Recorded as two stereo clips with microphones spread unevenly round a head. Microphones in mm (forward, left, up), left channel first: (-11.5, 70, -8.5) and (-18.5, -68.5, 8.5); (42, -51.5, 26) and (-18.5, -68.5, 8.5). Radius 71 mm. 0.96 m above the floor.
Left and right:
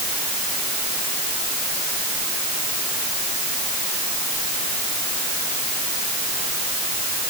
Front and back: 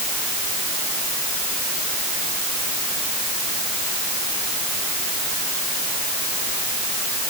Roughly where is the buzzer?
No buzzer in this recording.